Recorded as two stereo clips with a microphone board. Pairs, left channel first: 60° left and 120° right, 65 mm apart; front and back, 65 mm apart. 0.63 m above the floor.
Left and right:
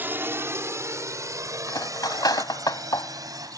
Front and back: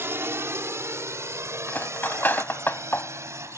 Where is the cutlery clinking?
55° left.